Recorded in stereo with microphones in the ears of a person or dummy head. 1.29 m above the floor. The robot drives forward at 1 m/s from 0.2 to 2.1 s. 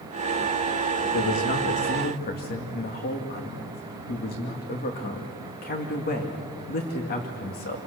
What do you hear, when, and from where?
1.1 s a man speaking: 60° left (ahead or behind), 1.9 m; by 7.8 s 45° left (ahead or behind), 2.5 m